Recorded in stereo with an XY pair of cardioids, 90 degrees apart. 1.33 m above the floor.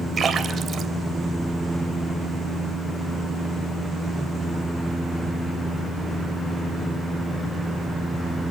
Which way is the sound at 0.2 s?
45° right.